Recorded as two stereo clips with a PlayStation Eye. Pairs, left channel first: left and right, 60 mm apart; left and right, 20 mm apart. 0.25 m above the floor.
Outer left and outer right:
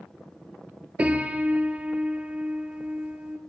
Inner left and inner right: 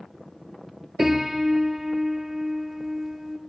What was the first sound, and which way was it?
A piano, 20° right (ahead or behind).